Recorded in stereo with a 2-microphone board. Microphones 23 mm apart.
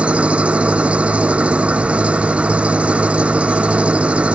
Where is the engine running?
80° right.